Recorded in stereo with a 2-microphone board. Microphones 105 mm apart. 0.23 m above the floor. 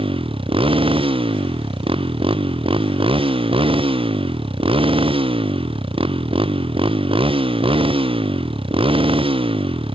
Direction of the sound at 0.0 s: 60° right (ahead or behind).